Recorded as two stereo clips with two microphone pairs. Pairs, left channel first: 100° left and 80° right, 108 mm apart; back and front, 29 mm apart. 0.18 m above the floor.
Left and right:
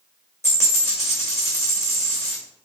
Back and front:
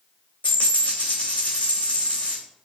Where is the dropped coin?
160° left, 1.8 m.